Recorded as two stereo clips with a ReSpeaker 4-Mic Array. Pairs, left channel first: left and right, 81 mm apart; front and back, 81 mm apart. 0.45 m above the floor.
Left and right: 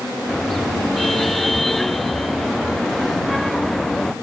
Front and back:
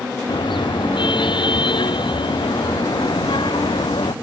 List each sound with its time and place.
0.3 s a car horn: 5° left